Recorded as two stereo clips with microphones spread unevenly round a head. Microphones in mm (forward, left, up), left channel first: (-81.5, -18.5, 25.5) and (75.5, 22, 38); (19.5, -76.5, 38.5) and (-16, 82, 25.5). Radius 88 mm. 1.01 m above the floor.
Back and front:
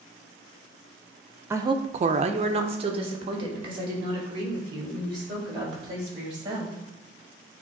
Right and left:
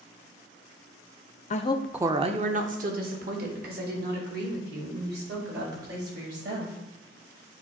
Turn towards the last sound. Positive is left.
turn(degrees=80)